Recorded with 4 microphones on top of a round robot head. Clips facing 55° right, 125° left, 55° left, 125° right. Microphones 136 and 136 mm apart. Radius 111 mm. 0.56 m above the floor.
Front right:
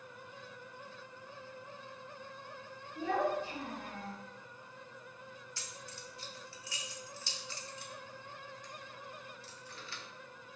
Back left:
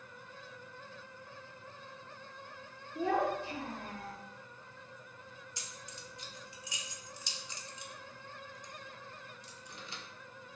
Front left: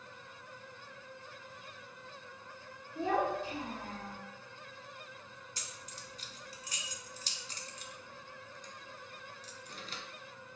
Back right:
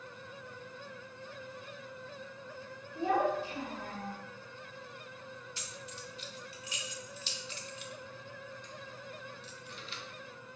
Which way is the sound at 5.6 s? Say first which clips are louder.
Front right 1 dB, back right 4 dB; 65° left.